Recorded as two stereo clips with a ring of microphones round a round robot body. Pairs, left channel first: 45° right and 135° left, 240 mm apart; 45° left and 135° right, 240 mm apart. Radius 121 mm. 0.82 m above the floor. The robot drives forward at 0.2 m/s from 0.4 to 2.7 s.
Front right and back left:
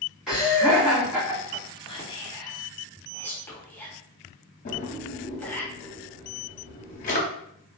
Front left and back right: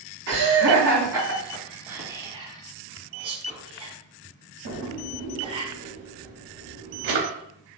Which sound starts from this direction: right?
A drawer, at 4.7 s.